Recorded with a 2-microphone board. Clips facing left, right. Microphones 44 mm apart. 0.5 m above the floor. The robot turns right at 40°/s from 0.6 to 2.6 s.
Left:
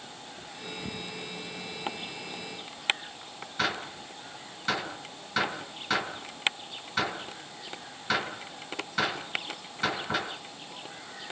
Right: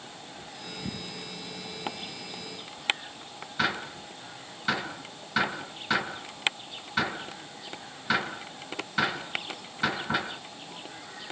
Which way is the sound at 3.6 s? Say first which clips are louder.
Right 2 dB; 10° right (ahead or behind).